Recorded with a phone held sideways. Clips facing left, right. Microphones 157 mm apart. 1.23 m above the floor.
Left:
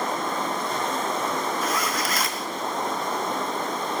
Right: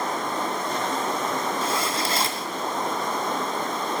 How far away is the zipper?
About 1.5 m.